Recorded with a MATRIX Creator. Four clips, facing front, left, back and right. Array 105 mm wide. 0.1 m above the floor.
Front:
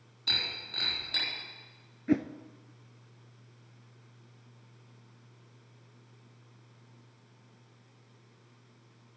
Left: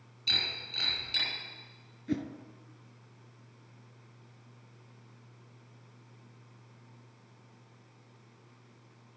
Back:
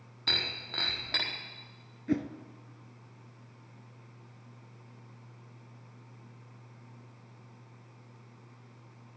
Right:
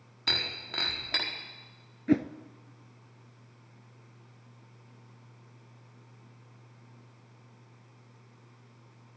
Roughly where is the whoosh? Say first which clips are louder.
Right 8 dB, front 3 dB; ahead right.